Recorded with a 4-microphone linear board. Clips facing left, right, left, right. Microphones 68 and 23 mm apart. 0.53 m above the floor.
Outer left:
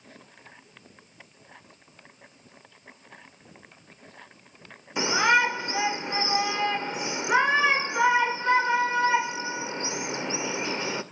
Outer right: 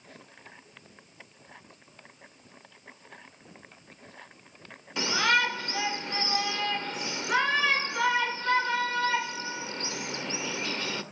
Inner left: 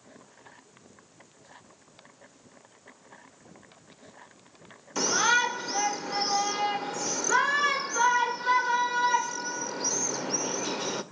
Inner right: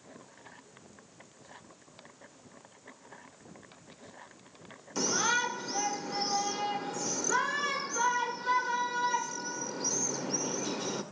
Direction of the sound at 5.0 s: 25° left (ahead or behind).